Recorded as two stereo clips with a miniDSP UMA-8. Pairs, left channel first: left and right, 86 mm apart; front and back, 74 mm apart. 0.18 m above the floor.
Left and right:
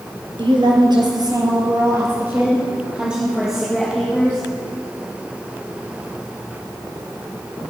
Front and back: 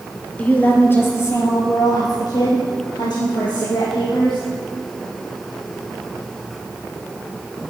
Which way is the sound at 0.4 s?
70° right.